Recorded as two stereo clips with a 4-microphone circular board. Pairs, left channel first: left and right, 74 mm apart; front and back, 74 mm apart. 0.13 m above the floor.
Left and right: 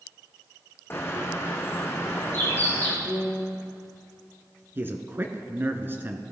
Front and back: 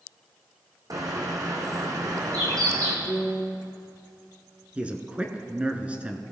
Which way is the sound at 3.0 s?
165° right.